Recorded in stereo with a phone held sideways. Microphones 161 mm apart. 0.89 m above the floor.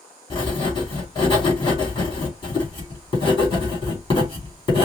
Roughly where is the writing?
Left.